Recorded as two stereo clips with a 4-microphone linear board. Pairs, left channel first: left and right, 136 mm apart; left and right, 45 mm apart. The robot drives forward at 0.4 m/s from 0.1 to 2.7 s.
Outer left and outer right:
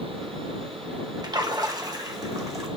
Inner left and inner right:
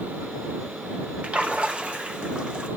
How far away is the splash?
About 1.0 m.